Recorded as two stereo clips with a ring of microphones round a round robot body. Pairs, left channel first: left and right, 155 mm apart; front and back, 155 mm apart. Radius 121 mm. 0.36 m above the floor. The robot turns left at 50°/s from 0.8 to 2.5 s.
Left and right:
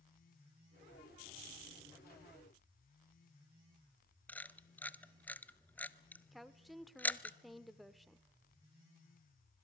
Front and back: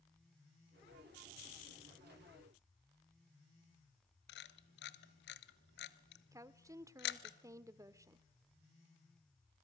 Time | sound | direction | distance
4.3 | a camera shutter | 10° left | 1.0 m
6.3 | a woman speaking | straight behind | 0.8 m